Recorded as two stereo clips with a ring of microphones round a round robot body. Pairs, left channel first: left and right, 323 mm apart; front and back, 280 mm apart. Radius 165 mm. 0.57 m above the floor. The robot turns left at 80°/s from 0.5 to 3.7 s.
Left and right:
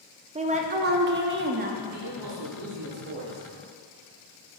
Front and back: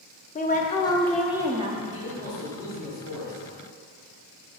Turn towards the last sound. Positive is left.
turn(degrees=165)